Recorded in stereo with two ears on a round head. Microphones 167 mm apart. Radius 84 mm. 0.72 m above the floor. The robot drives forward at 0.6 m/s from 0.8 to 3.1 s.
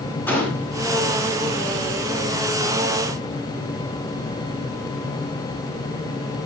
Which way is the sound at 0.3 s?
10° left (ahead or behind).